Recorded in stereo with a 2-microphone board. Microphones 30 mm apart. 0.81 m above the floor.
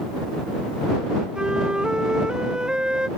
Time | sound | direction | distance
1.4 | a flute | 30° right (ahead or behind) | ?